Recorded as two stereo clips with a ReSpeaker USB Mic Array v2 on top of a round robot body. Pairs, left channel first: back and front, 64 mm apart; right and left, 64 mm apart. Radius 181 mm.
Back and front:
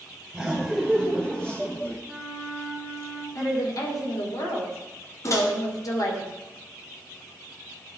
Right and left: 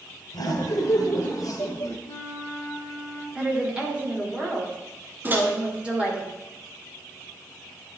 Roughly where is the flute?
Right.